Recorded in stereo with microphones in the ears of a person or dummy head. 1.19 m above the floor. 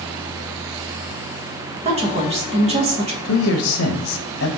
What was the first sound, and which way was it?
A woman speaking, 35° right (ahead or behind).